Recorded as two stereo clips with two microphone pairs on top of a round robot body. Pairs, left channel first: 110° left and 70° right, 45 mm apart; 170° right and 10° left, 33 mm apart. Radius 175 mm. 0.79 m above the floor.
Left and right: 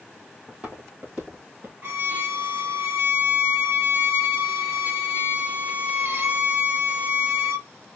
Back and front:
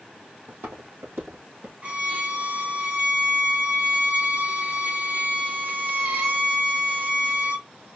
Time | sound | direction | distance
0.5 | footsteps | 5° right | 2.5 m
1.8 | a violin | 35° right | 2.5 m